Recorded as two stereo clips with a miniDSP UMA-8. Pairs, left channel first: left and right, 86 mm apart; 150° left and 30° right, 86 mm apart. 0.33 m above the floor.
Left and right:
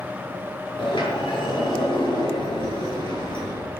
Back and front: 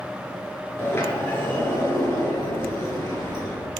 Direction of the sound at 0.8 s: 90° left.